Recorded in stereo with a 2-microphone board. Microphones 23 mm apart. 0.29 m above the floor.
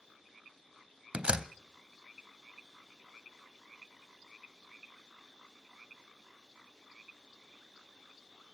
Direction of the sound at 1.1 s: 50° right (ahead or behind).